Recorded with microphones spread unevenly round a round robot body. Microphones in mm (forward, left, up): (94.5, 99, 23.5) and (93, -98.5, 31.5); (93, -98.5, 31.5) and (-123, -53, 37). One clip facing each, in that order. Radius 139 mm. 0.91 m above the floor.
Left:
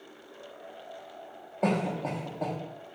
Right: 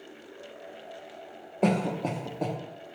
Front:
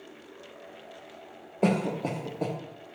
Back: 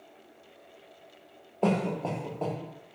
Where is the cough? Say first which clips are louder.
Right 2 dB, front 1 dB; 60° right, 0.5 m.